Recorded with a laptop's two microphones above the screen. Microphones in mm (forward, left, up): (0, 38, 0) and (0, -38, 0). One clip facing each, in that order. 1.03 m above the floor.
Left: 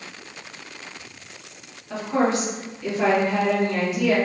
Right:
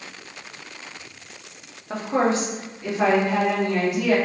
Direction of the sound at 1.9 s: 40° right (ahead or behind).